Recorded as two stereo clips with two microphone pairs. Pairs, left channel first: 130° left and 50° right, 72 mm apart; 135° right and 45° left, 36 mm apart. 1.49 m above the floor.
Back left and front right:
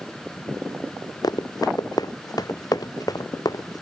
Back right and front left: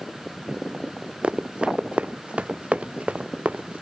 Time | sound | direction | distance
1.2 | running footsteps | 105° left | ?